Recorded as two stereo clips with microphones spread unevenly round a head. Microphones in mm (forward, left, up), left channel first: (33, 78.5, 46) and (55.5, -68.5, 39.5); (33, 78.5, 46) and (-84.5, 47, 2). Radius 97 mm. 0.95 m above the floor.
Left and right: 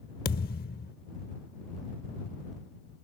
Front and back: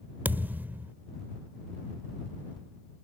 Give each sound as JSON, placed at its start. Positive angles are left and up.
{"t": 0.2, "sound": "a thud", "azimuth_deg": 105}